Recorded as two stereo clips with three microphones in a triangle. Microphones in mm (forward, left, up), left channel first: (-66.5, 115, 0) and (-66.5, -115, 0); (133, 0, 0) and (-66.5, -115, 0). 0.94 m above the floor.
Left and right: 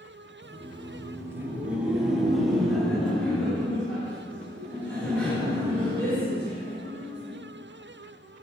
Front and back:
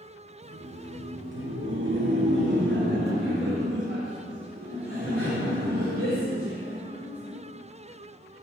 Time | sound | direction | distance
0.4 | laughter | 140° right | 0.7 m